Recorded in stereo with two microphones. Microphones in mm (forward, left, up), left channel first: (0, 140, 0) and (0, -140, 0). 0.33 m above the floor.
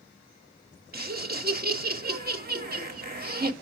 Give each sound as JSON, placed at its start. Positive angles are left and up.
{"t": 0.9, "sound": "laughter", "side_deg": -35, "distance_m": 1.0}